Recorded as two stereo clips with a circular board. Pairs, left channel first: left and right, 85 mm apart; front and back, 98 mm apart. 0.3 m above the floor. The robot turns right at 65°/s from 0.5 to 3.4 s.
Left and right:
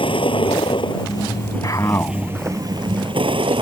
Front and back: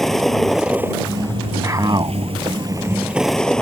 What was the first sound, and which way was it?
A vehicle, 90° left.